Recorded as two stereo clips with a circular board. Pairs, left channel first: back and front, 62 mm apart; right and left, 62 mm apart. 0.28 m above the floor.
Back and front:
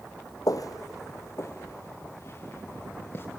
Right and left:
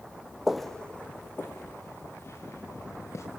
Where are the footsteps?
175° left, 0.8 m; by 3.2 s 130° right, 3.5 m.